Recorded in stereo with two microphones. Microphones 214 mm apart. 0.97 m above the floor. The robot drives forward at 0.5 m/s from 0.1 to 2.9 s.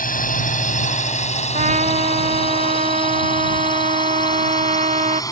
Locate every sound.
0.0 s a drone: 40° left (ahead or behind); by 5.3 s 15° left (ahead or behind)
1.5 s a trumpet: 35° right (ahead or behind)